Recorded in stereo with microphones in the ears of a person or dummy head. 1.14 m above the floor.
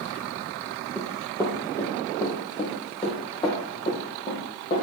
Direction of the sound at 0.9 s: 10° left (ahead or behind).